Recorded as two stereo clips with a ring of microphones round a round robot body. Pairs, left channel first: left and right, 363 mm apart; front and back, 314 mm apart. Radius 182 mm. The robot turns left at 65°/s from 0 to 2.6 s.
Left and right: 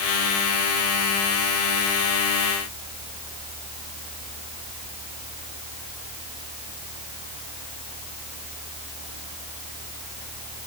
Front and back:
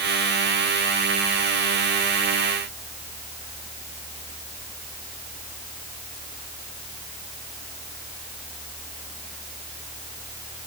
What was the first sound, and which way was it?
Only background noise.